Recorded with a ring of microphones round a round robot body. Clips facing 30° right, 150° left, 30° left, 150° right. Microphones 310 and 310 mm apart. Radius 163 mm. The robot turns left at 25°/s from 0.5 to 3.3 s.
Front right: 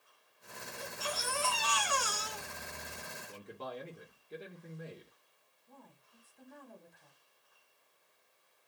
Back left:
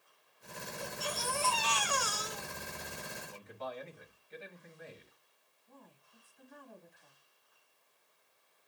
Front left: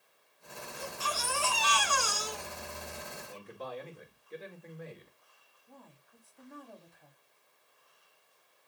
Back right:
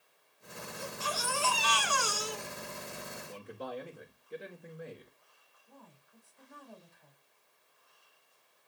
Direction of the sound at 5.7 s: 15° left.